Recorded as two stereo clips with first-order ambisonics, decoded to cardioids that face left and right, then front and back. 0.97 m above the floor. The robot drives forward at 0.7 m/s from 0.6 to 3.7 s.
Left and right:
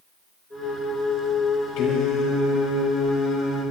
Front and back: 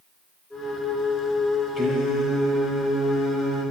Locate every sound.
1.8 s singing: 100° left, 3 m; by 3.6 s 125° left, 3.5 m